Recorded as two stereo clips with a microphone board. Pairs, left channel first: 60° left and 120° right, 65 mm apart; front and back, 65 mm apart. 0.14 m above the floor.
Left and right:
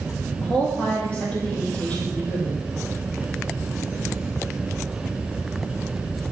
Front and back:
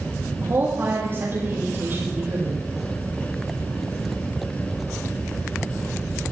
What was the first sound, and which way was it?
A woman speaking, 130° left.